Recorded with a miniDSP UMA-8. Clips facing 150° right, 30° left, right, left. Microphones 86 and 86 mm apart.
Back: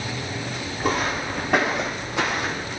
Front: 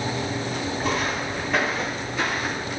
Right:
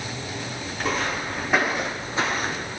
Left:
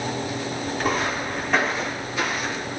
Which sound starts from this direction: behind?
Footsteps, at 0.8 s.